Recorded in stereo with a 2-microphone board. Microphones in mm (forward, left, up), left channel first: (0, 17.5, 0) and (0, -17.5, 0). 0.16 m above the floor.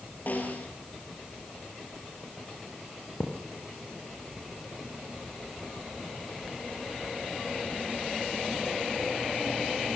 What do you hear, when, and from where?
0.3 s a snare drum: 50° left (ahead or behind), 4.5 m
3.2 s a thud: 85° left, 4.5 m